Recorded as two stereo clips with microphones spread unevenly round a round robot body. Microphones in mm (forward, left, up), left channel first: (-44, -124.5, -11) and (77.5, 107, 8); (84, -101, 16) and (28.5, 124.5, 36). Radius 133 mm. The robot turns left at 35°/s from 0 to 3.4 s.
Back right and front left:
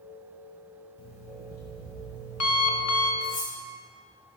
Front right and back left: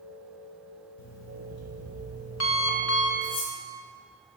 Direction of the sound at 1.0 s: 50° right.